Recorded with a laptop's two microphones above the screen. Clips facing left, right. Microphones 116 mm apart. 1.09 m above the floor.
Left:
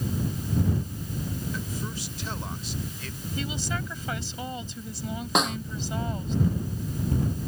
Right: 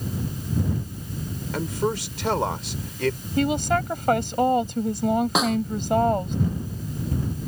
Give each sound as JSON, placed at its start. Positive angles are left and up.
{"t": 1.5, "sound": "a man speaking", "side_deg": -90}
{"t": 3.4, "sound": "a woman speaking", "side_deg": -60}
{"t": 5.3, "sound": "a snare drum", "side_deg": 0}